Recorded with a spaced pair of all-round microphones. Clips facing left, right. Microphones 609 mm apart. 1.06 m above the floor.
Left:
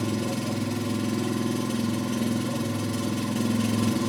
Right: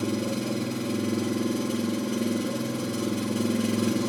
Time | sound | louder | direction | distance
0.0 | an engine running | even | 25° left (ahead or behind) | 0.8 m